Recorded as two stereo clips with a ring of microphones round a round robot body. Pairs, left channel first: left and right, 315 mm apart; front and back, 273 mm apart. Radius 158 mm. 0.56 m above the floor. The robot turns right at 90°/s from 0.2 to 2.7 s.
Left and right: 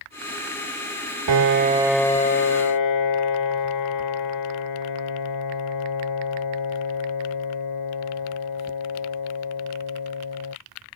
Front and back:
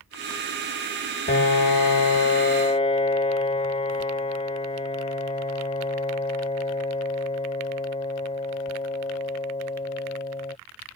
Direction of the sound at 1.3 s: 60° right.